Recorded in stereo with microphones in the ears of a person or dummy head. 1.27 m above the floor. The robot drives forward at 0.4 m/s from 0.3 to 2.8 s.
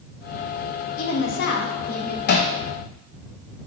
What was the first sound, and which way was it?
A woman speaking, 70° left (ahead or behind).